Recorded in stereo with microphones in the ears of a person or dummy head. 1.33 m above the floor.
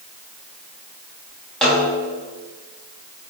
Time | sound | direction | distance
1.6 | a snare drum | 5° left (ahead or behind) | 2.5 m